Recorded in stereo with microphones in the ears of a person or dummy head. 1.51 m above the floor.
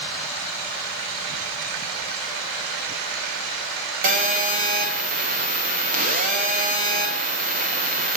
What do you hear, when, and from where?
4.0 s a phone buzzing: 45° right (ahead or behind), 1.1 m